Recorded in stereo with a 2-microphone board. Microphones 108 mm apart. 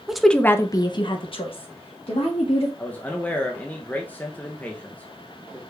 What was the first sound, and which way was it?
A woman speaking, 5° right (ahead or behind).